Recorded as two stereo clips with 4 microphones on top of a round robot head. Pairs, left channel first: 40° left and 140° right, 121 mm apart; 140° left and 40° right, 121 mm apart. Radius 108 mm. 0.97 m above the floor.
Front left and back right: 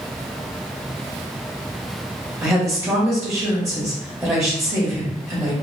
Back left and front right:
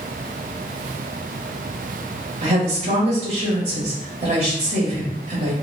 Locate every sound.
2.4 s a woman speaking: 75° right, 1.6 m